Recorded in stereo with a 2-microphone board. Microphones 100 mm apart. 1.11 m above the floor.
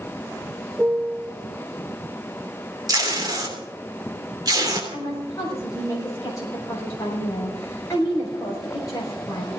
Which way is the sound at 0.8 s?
10° right (ahead or behind).